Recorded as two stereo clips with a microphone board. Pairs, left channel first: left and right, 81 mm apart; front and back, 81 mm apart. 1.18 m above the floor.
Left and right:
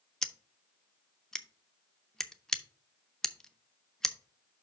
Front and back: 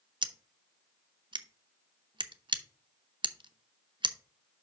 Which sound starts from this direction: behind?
Scissors, at 0.2 s.